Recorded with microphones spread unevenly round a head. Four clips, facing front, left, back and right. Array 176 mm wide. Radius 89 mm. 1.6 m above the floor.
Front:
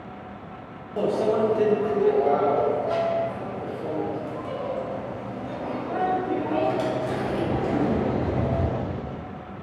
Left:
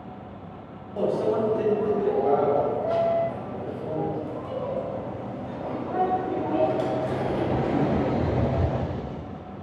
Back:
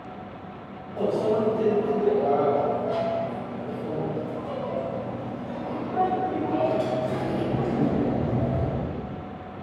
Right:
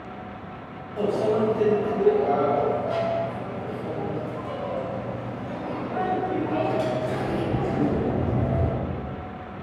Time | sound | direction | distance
1.0 | a microwave | 25° left | 1.2 m